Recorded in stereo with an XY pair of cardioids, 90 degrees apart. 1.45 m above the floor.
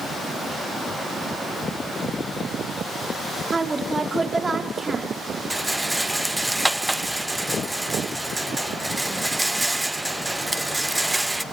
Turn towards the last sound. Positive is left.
turn(degrees=-10)